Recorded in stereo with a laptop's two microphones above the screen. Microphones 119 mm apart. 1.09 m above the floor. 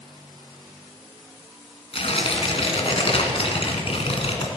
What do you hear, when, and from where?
1.9 s tearing paper: 55° left (ahead or behind), 2 m